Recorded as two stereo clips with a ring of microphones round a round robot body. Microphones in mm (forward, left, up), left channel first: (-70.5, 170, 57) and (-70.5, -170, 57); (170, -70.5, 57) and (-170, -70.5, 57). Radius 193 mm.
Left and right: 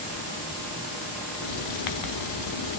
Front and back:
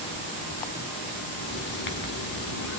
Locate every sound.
1.4 s writing: 60° left, 1.0 m